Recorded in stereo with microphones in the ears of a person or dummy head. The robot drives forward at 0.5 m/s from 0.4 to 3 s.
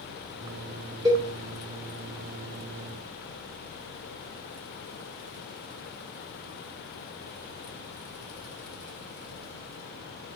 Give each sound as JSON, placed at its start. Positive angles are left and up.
{"t": 1.1, "sound": "a cowbell", "side_deg": -20, "distance_m": 1.5}